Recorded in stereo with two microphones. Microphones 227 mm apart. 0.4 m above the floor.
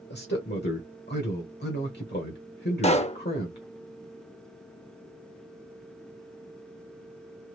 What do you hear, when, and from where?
0.1 s a man speaking: 50° left (ahead or behind), 1.1 m
2.8 s a pop: 30° left (ahead or behind), 0.5 m